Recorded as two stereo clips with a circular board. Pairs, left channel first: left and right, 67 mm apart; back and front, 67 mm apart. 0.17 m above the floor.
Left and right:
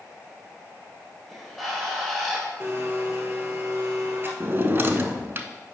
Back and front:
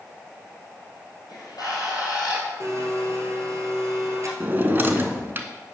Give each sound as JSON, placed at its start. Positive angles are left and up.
{"t": 1.3, "sound": "a bird", "azimuth_deg": 175, "distance_m": 2.5}
{"t": 2.6, "sound": "a blender", "azimuth_deg": -35, "distance_m": 1.4}
{"t": 4.4, "sound": "a drawer", "azimuth_deg": -45, "distance_m": 0.6}